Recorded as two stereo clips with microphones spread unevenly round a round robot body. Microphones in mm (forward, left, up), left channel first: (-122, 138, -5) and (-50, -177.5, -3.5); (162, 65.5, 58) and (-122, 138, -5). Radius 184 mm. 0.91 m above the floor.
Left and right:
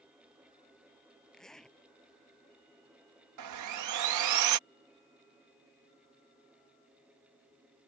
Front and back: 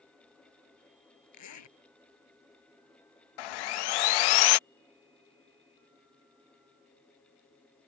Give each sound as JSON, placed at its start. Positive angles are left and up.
{"t": 1.3, "sound": "a zipper", "azimuth_deg": 15}
{"t": 3.4, "sound": "sawing", "azimuth_deg": -30}